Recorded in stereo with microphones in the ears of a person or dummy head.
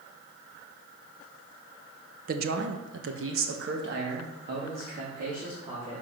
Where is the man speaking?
45° right (ahead or behind), 1.0 m; by 6.0 s 50° right (ahead or behind), 3 m.